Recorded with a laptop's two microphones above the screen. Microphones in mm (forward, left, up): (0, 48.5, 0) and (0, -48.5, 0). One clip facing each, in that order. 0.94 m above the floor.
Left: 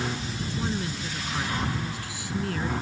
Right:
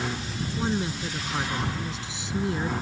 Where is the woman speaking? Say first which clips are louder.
Right 4 dB; 25° right (ahead or behind); by 2.7 s 20° right (ahead or behind).